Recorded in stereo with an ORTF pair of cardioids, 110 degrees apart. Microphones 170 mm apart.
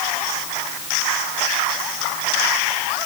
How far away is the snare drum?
I don't hear a snare drum.